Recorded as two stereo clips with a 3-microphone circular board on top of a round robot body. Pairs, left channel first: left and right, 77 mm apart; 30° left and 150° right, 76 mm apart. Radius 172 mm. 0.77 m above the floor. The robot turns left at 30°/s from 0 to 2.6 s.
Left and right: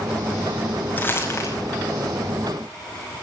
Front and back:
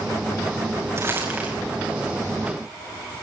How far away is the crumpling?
About 6 m.